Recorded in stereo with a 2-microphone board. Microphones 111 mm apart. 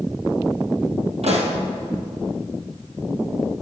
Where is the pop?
75° right (ahead or behind), 2 m.